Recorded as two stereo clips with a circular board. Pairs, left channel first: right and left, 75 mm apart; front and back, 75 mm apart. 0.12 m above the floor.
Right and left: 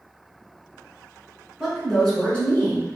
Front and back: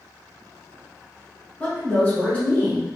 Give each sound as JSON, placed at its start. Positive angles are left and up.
{"t": 1.6, "sound": "a woman speaking", "azimuth_deg": 20, "distance_m": 1.3}